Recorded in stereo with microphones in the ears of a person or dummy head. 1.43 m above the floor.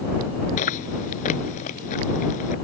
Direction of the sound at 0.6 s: 45° left (ahead or behind).